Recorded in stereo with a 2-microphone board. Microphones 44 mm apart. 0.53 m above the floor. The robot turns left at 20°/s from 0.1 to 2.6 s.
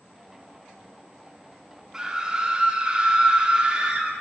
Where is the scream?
15° right (ahead or behind), 0.8 m; by 4.1 s 20° right (ahead or behind), 0.8 m.